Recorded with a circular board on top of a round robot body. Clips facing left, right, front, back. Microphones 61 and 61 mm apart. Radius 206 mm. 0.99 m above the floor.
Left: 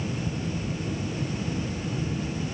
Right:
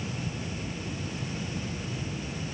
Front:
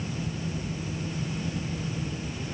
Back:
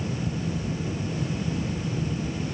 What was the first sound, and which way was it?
Only background noise.